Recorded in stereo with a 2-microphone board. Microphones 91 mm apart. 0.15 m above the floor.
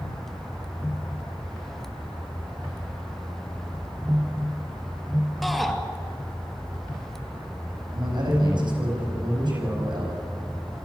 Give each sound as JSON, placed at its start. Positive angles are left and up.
{"t": 5.4, "sound": "a shout", "side_deg": 0, "distance_m": 2.5}
{"t": 7.9, "sound": "a man speaking", "side_deg": -60, "distance_m": 9.0}